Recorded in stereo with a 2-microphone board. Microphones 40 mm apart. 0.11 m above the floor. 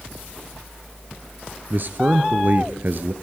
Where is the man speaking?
50° right (ahead or behind), 1.7 m.